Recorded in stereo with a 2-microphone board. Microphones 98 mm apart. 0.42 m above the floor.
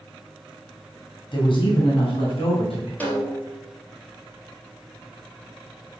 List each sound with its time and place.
1.3 s a man speaking: 55° left (ahead or behind), 3 m; by 2.9 s 65° left (ahead or behind), 5 m
3.0 s a snare drum: 15° left (ahead or behind), 3 m